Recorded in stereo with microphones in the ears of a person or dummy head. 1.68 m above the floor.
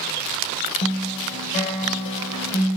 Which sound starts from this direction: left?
A guitar, at 0.8 s.